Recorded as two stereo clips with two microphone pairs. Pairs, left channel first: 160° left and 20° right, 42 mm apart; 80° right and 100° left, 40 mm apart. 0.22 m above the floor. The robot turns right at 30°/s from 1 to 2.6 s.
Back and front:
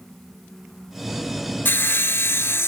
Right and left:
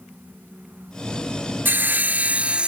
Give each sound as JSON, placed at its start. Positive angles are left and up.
{"t": 1.6, "sound": "sawing", "azimuth_deg": 135}